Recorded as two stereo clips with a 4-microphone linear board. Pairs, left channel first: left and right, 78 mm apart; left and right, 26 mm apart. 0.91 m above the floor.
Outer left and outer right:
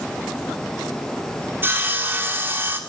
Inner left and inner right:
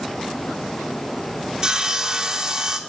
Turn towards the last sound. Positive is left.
turn(degrees=-25)  # may be behind; listen again after turning